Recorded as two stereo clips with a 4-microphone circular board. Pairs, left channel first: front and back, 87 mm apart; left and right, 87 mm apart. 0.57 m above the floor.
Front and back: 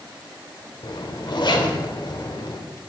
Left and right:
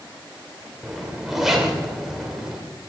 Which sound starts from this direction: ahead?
A zipper, at 0.8 s.